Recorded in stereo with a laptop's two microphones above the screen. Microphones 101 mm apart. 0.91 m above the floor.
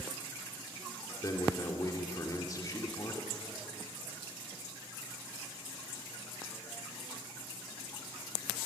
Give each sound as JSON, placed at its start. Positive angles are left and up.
{"t": 1.2, "sound": "a man speaking", "side_deg": 35, "distance_m": 2.5}